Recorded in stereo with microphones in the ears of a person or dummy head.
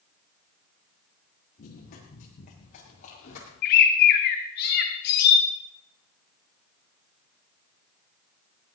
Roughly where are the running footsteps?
Left.